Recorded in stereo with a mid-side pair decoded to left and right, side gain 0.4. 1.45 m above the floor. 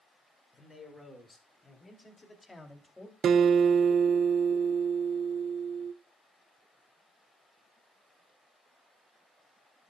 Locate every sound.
0.5 s a man speaking: 30° left, 6.5 m; by 3.1 s 15° left, 3 m
3.2 s a guitar: 65° right, 0.6 m